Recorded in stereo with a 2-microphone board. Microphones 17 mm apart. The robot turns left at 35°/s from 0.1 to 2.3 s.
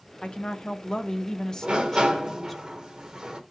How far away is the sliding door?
About 0.9 m.